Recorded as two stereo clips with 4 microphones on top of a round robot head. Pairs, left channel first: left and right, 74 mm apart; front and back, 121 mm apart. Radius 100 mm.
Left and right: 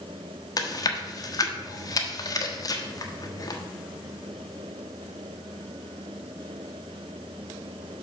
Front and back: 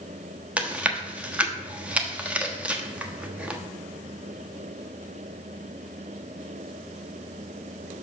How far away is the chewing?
About 1.2 m.